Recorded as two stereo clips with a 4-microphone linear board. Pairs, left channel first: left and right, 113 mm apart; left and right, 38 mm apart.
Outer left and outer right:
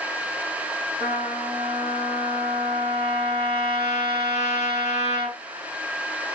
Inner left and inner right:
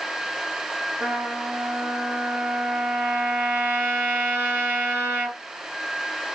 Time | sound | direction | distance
1.0 | a trumpet | 60° right (ahead or behind) | 2.5 m